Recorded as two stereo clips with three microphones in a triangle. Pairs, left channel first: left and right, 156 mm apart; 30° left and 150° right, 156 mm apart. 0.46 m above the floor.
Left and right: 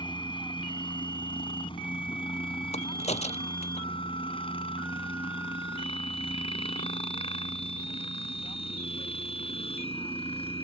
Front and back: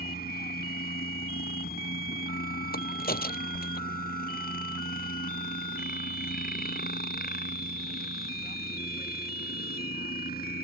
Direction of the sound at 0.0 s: 35° left.